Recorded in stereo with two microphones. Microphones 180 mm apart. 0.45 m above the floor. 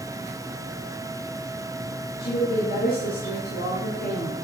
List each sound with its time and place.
2.2 s a woman speaking: 60° left (ahead or behind), 4.5 m; by 4.3 s 75° left (ahead or behind), 5.5 m